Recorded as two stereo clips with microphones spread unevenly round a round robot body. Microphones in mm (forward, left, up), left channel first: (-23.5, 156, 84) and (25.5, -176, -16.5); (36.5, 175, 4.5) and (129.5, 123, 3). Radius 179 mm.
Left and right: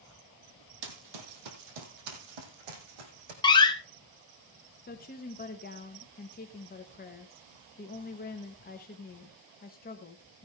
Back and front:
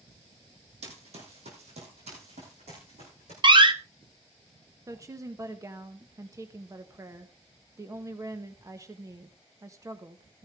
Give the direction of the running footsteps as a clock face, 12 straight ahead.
2 o'clock.